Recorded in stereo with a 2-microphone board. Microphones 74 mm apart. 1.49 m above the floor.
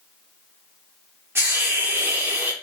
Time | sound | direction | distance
1.4 | a hiss | 30° right (ahead or behind) | 1.3 m